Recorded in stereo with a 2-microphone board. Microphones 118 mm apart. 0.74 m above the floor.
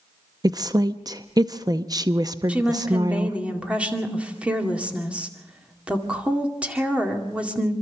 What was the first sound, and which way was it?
A woman speaking, 35° right (ahead or behind).